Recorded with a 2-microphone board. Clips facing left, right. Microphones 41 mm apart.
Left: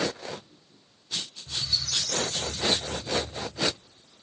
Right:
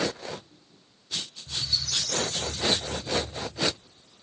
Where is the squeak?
25° left (ahead or behind), 4.5 m.